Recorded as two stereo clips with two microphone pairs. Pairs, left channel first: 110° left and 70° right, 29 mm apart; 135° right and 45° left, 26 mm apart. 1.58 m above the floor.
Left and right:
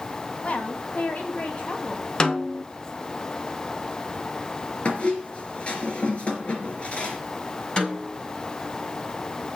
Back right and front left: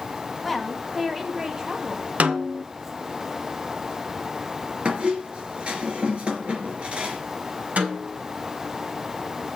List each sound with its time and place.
0.4 s a woman speaking: 135° left, 2 m; by 2.0 s 85° left, 2 m
2.2 s a snare drum: 50° left, 1.2 m
4.8 s a squeak: 75° left, 3 m
7.8 s a snare drum: 55° left, 6.5 m